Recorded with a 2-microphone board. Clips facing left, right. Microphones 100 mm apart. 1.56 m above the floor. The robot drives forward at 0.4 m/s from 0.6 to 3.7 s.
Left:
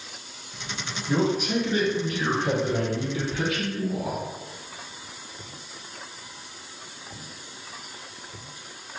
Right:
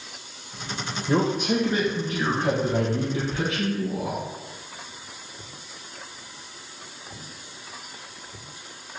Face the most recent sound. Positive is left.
turn(degrees=-30)  # may be behind; listen again after turning